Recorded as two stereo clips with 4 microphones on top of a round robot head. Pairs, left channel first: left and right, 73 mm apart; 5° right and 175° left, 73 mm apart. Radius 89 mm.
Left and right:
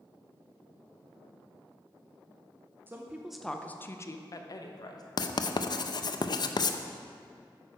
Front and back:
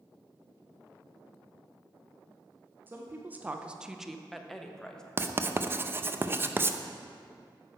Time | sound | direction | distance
2.9 | a woman speaking | 135° right | 0.8 m
5.2 | writing | 115° left | 0.6 m